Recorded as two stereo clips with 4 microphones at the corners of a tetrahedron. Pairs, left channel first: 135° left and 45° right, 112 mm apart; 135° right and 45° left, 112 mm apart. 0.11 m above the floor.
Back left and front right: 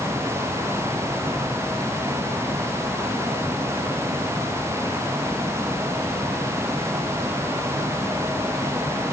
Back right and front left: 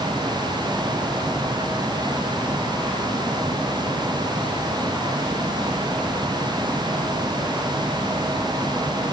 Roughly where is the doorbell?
I don't hear a doorbell.